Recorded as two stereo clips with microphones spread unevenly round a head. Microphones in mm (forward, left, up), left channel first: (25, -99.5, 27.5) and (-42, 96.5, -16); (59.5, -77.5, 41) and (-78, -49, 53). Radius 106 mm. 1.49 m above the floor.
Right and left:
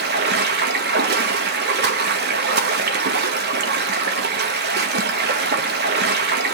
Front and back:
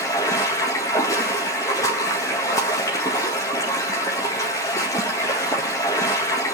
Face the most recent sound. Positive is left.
turn(degrees=65)